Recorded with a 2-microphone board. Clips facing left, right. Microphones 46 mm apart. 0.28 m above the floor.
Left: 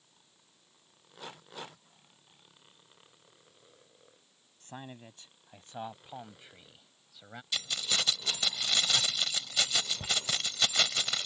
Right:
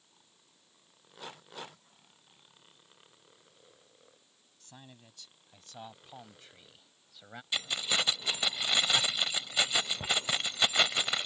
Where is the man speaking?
40° left (ahead or behind); by 7.4 s centre (ahead or behind).